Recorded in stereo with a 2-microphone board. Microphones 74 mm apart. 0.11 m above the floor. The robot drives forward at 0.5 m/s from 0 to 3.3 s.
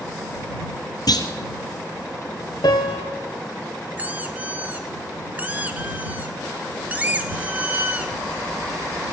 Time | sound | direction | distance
1.1 | a clunk | 65° left (ahead or behind) | 1.3 m
2.6 | a piano | 70° left (ahead or behind) | 2.5 m
4.0 | a squeak | 20° right (ahead or behind) | 1.1 m